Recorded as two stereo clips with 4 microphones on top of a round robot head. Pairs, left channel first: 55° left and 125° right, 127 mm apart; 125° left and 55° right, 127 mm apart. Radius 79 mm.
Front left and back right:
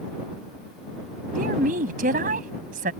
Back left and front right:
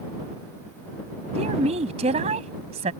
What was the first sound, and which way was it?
A woman speaking, 100° right.